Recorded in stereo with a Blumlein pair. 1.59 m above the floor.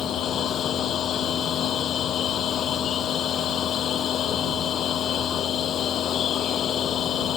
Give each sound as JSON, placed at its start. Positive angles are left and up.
{"t": 0.0, "sound": "a machine running", "azimuth_deg": 30}